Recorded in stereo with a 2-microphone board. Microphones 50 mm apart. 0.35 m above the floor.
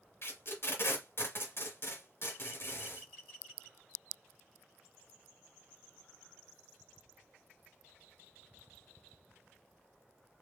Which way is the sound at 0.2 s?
50° left (ahead or behind).